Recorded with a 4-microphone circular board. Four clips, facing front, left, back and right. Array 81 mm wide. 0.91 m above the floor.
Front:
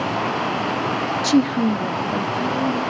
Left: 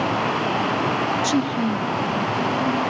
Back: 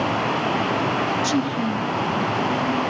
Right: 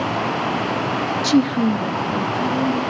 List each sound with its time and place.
1.2 s a woman speaking: 40° right, 0.6 m; by 2.8 s 35° right, 2.5 m